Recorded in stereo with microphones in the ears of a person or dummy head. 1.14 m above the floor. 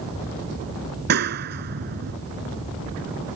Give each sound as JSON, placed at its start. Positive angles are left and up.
{"t": 1.1, "sound": "a clap", "side_deg": -50}